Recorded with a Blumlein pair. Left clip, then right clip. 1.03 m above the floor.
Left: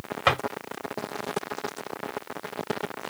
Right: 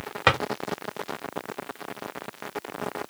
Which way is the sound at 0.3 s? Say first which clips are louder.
Right 1 dB; 10° right.